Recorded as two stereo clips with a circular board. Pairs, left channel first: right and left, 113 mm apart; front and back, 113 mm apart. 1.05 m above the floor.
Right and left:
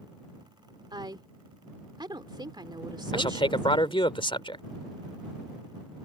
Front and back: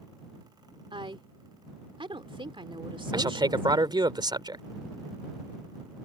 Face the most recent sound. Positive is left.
turn(degrees=-130)